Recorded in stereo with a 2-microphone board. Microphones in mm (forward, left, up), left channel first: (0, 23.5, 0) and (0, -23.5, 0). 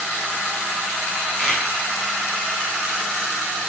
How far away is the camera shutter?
About 1.7 m.